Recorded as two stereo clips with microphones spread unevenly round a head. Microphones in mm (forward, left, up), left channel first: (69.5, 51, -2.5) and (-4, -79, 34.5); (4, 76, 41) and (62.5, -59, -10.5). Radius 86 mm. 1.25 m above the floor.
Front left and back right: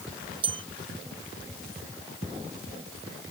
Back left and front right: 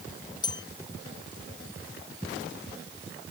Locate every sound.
0.4 s a bell: straight behind